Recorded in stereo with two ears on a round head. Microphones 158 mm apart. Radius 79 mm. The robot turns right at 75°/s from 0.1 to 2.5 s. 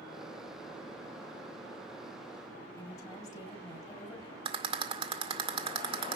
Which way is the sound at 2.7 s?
20° left (ahead or behind).